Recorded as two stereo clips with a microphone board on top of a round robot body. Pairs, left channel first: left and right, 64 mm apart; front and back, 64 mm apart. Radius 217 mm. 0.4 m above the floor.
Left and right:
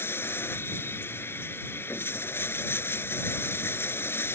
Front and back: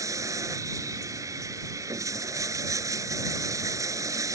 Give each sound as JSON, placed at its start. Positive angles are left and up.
{"t": 0.0, "sound": "running water", "azimuth_deg": 145}